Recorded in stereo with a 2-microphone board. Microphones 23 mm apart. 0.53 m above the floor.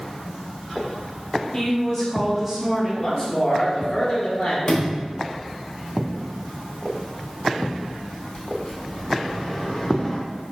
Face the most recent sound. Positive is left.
turn(degrees=35)  # may be behind; listen again after turning